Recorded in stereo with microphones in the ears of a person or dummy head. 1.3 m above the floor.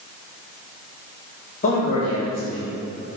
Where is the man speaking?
40° left (ahead or behind), 3.5 m.